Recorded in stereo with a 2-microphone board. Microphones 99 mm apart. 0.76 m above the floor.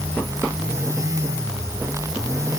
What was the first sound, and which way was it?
Only background noise.